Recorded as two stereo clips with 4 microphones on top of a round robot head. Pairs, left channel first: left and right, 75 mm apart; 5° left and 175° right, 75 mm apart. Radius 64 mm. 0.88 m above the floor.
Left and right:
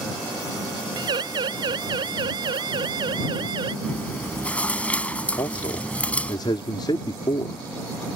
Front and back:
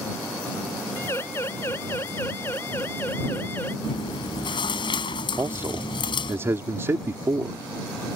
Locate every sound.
1.0 s a siren: 65° right; by 3.7 s 70° right
3.8 s chewing: 15° left
5.4 s a man speaking: 130° left